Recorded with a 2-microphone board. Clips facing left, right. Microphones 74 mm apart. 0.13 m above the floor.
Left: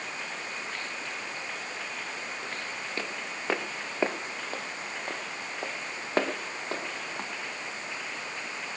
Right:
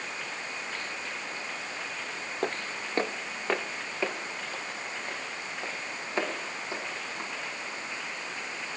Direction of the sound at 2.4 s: 60° right (ahead or behind).